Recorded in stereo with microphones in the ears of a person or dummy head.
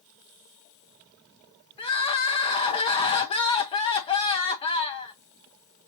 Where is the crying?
30° left (ahead or behind), 0.7 m.